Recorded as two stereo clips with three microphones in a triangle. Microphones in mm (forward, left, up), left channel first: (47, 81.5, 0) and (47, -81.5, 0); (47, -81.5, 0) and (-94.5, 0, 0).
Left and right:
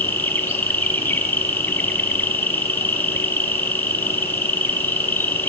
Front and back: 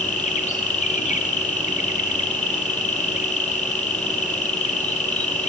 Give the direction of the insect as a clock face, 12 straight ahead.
12 o'clock.